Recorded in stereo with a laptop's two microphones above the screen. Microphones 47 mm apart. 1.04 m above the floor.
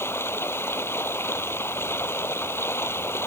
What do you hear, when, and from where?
0.0 s running water: 60° left (ahead or behind)